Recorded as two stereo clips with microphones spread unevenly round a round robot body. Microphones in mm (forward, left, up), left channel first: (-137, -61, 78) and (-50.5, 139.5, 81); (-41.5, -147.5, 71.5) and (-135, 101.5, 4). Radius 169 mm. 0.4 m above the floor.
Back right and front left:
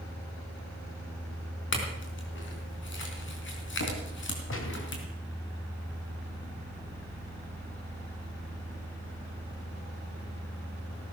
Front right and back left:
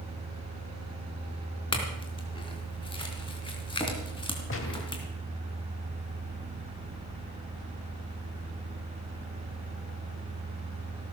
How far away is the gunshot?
About 3 m.